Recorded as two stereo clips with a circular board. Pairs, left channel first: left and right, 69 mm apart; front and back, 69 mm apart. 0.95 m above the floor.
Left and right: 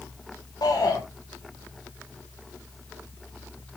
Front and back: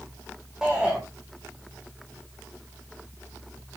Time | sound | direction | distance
0.6 | a shout | 95° left | 4 m